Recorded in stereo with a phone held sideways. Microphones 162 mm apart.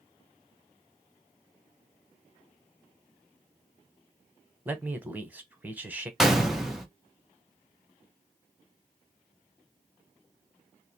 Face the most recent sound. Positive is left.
turn(degrees=0)  # may be behind; listen again after turning